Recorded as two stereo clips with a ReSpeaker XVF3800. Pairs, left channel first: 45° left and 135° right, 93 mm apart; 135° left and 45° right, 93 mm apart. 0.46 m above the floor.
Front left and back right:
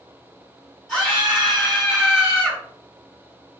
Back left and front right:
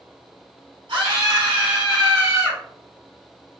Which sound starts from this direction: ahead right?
A scream, at 0.9 s.